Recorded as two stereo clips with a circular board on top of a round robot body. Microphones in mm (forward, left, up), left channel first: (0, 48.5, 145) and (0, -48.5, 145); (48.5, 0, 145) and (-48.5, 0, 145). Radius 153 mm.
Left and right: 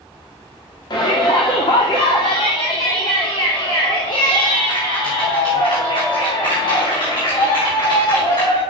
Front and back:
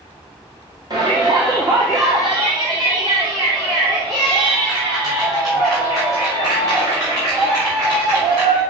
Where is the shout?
130° left, 2 m.